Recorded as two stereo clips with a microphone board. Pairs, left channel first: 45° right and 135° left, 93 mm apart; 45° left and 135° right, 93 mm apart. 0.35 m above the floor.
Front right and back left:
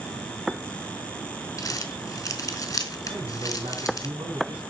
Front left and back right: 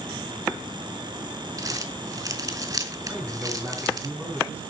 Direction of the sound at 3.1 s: 155° left.